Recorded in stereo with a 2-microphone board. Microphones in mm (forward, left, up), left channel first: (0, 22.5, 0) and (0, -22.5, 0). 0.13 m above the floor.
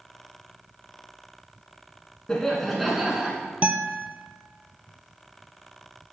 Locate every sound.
2.3 s laughter: 15° left (ahead or behind), 1.2 m; by 3.4 s 20° right (ahead or behind), 1.2 m
3.6 s a guitar: 35° right (ahead or behind), 0.6 m